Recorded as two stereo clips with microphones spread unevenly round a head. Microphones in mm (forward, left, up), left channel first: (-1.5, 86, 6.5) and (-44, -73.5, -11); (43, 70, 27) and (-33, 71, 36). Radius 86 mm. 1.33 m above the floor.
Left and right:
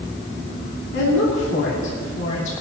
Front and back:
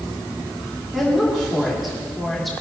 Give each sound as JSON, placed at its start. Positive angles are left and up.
{"t": 0.9, "sound": "a woman speaking", "azimuth_deg": 90, "distance_m": 3.0}